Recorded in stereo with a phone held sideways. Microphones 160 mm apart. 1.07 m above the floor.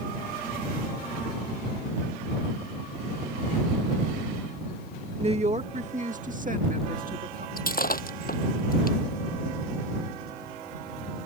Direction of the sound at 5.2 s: 40° right (ahead or behind).